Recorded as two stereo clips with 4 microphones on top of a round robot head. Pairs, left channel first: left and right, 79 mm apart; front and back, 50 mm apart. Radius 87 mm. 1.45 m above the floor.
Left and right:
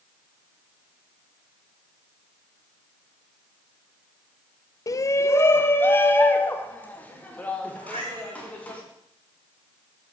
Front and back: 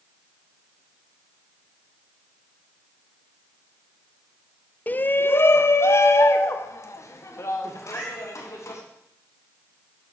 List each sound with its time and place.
4.9 s a shout: 55° left, 0.5 m; by 8.8 s 15° left, 2.5 m
7.8 s a cat meowing: 70° right, 1.2 m